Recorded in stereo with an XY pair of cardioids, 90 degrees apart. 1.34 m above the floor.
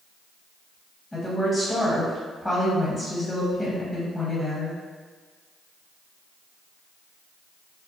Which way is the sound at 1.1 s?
15° left.